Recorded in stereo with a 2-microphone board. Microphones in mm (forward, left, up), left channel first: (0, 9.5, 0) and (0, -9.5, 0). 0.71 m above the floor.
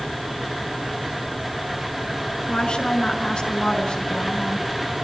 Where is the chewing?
I don't hear chewing.